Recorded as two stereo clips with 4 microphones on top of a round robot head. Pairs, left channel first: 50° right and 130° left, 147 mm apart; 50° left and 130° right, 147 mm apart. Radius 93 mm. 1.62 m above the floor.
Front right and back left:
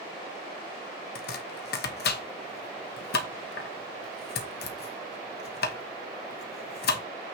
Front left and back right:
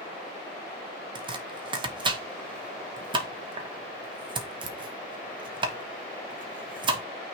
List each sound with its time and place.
1.1 s chopping: 70° right, 1.1 m